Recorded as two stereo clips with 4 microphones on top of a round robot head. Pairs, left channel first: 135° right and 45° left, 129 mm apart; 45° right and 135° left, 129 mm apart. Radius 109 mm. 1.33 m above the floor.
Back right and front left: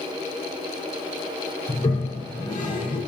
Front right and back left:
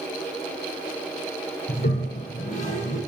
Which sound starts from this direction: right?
A toilet flushing, at 1.7 s.